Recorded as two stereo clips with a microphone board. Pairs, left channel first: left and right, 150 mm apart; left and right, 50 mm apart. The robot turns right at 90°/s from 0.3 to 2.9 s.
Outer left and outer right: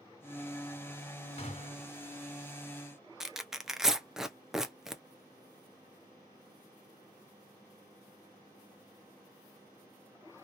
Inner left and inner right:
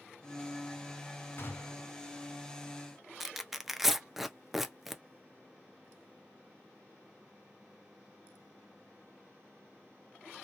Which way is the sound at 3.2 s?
5° right (ahead or behind).